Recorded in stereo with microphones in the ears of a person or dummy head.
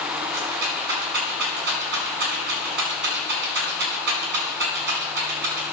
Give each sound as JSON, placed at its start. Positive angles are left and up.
{"t": 0.3, "sound": "a rattle", "side_deg": -65, "distance_m": 6.5}